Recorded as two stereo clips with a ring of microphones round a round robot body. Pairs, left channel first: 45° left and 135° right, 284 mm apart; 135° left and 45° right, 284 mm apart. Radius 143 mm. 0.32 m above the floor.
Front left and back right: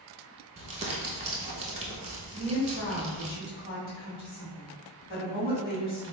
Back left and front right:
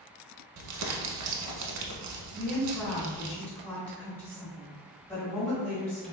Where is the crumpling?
65° right, 0.6 m.